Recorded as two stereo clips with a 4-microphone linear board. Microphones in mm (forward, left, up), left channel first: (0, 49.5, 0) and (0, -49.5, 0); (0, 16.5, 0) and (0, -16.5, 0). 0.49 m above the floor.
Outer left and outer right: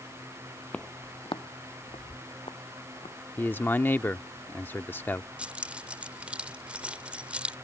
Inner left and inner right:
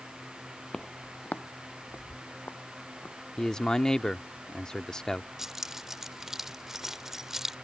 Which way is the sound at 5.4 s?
10° right (ahead or behind).